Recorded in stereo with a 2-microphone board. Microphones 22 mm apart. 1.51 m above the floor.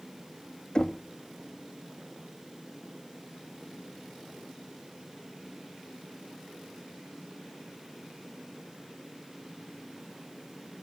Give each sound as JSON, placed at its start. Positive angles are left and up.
{"t": 0.8, "sound": "knocking", "side_deg": 45, "distance_m": 1.3}